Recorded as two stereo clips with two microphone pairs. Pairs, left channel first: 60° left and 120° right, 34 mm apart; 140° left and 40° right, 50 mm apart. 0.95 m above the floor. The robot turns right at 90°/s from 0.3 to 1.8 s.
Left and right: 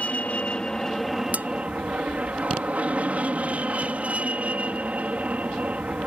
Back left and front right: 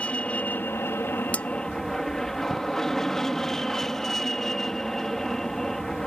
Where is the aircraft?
85° left; by 6.1 s 140° right.